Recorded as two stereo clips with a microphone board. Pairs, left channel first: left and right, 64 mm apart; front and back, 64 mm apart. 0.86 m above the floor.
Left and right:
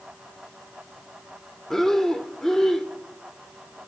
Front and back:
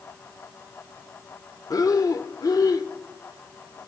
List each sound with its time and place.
1.7 s breathing: 5° left, 0.9 m